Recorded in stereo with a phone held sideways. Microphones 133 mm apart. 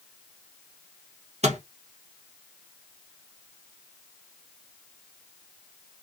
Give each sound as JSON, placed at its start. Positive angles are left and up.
{"t": 1.4, "sound": "a microwave", "side_deg": -55, "distance_m": 1.1}